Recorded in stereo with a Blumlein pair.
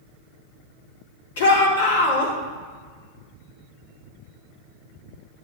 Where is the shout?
60° left, 3 m.